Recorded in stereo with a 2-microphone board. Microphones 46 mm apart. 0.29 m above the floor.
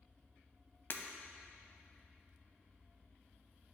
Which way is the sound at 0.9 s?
45° left (ahead or behind).